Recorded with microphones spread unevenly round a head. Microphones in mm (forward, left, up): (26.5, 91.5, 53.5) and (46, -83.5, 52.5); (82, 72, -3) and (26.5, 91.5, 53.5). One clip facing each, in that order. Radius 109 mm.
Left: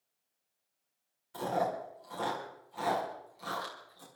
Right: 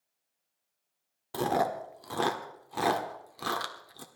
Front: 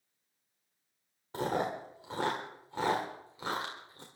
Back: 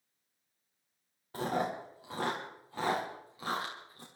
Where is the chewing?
105° right, 1.6 m.